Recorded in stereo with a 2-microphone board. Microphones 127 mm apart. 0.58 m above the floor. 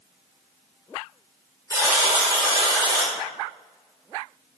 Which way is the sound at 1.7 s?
25° right (ahead or behind).